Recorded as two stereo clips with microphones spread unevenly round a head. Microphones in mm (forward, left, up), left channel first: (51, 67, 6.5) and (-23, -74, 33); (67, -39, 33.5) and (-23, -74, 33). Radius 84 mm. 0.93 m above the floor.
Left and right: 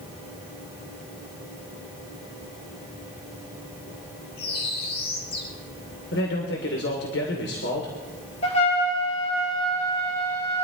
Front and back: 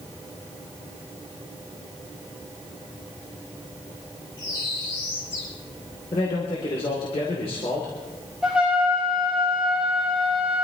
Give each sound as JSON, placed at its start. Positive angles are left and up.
{"t": 4.4, "sound": "a bird", "azimuth_deg": 85, "distance_m": 4.5}
{"t": 6.1, "sound": "a man speaking", "azimuth_deg": 70, "distance_m": 3.0}
{"t": 8.4, "sound": "a trumpet", "azimuth_deg": 115, "distance_m": 4.0}